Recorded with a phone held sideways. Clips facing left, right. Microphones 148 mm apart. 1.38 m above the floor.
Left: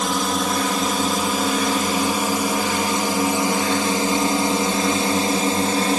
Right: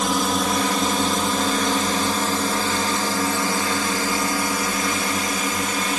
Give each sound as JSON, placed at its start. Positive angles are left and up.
{"t": 0.0, "sound": "a drone", "side_deg": 0}